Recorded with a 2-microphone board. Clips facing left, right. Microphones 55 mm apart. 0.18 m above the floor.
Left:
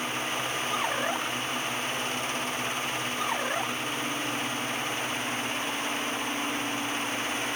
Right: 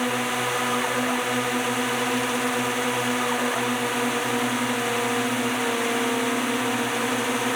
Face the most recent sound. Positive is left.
turn(degrees=-80)